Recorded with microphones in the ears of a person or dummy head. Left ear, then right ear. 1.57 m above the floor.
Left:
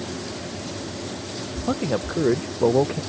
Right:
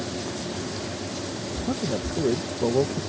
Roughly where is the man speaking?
Left.